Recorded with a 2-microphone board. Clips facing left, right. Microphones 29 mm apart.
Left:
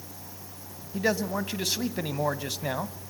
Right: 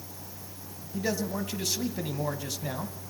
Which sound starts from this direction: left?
A man speaking, at 0.9 s.